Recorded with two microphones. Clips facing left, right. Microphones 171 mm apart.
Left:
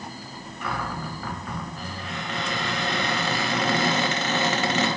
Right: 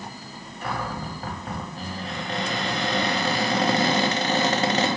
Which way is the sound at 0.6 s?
35° right (ahead or behind).